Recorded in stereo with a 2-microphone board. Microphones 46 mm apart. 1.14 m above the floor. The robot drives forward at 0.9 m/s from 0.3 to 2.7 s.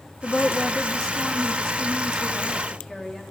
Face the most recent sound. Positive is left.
turn(degrees=10)  # may be behind; listen again after turning